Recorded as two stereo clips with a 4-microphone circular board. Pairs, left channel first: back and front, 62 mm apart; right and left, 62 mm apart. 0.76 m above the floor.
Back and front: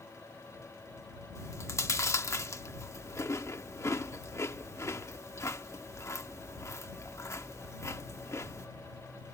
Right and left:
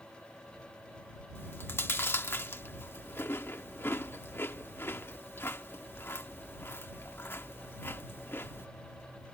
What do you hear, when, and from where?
1.4 s chewing: 140° right